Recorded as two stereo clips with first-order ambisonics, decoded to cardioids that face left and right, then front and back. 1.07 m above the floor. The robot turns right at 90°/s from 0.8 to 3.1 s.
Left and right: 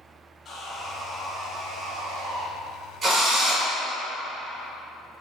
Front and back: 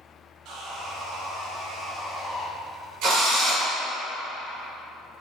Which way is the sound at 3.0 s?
160° right.